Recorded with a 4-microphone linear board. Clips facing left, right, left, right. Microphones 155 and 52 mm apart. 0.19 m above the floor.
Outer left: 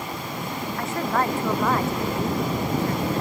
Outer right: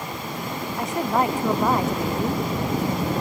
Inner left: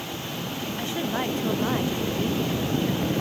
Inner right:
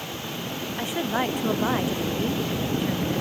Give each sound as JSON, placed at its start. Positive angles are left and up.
{"t": 0.8, "sound": "a woman speaking", "side_deg": -15}